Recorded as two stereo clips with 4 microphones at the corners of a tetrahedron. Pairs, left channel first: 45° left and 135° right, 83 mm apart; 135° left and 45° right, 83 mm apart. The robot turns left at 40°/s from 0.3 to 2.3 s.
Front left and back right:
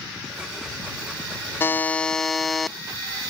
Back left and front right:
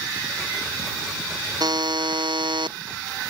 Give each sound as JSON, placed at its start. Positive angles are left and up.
{"t": 1.6, "sound": "a buzzer", "azimuth_deg": -15}